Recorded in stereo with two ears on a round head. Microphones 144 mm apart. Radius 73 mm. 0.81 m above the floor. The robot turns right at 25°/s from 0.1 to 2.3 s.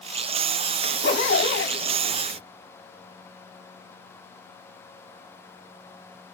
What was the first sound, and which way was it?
A zipper, 70° left (ahead or behind).